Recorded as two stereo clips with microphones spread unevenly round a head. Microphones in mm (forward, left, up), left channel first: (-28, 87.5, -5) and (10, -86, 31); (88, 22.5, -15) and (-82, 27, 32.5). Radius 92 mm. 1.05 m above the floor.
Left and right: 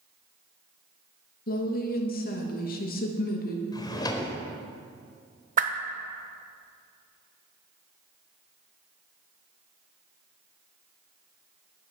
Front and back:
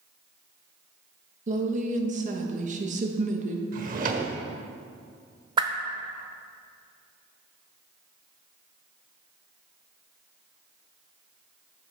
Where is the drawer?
175° left, 1.2 m.